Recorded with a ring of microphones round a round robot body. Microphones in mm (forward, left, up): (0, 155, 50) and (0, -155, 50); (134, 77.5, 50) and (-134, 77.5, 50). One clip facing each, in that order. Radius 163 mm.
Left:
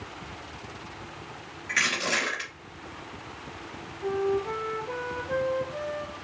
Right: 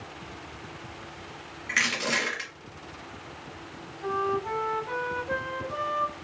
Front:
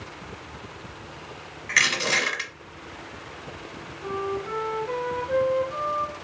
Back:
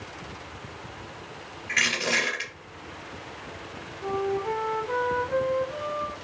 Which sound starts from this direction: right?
A flute, at 4.0 s.